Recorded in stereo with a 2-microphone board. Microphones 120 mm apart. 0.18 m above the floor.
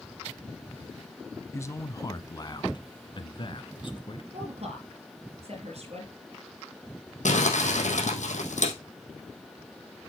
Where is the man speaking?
20° left (ahead or behind), 1.1 m; by 4.2 s 45° left (ahead or behind), 2 m.